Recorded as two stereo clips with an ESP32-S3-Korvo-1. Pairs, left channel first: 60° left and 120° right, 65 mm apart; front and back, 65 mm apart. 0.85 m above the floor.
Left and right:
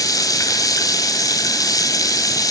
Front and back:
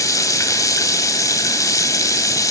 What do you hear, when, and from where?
0.0 s running water: 35° left, 2.5 m